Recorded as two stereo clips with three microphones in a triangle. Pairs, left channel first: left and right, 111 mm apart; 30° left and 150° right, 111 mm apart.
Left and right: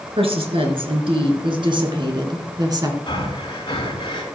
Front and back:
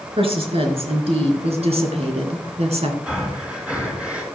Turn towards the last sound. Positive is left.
turn(degrees=130)